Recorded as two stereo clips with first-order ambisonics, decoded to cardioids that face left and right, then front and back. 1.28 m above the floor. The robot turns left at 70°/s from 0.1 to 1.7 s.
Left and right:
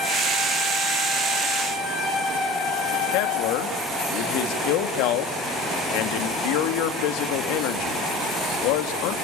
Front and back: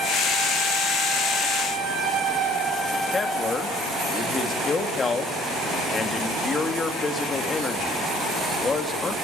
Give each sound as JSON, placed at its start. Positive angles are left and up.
{"t": 3.1, "sound": "a man speaking", "azimuth_deg": 75, "distance_m": 2.0}